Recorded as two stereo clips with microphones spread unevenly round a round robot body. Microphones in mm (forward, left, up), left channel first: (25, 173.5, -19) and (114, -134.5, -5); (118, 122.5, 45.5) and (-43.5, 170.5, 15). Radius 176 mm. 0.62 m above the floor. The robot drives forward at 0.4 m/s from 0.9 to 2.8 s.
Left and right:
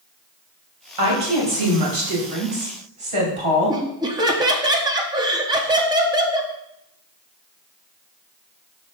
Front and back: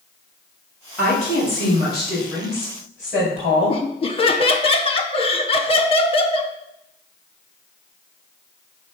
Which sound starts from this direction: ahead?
Laughter, at 3.7 s.